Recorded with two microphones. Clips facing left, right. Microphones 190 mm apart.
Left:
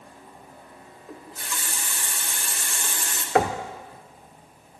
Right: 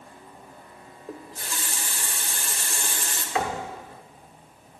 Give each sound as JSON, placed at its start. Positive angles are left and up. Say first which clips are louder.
{"t": 1.1, "sound": "a running tap", "louder": "right 1 dB", "side_deg": -35, "distance_m": 1.3}
{"t": 3.4, "sound": "knocking", "louder": "left 6 dB", "side_deg": 55, "distance_m": 0.8}